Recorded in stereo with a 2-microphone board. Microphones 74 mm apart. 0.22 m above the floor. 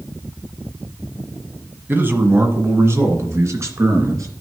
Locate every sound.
1.9 s a man speaking: 25° right (ahead or behind), 1.5 m; by 4.3 s 40° right (ahead or behind), 3 m